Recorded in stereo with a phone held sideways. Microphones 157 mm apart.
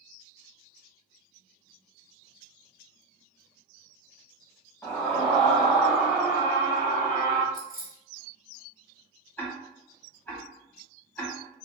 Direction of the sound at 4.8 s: 5° left (ahead or behind).